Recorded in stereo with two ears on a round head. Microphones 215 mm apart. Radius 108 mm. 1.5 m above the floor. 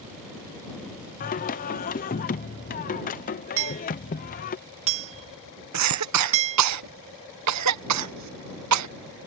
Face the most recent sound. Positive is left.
turn(degrees=-75)  # may be behind; listen again after turning